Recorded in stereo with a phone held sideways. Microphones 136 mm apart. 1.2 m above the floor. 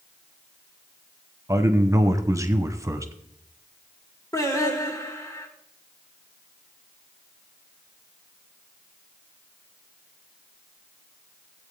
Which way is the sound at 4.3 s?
25° left (ahead or behind).